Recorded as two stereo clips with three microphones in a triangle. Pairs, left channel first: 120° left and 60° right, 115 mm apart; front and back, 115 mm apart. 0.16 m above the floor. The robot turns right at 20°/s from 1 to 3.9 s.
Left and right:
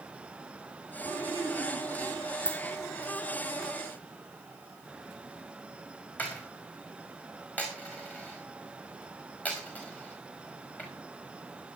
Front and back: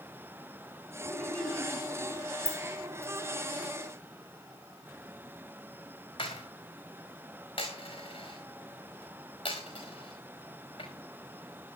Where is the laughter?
70° right, 1.4 m; by 2.3 s 45° right, 1.4 m.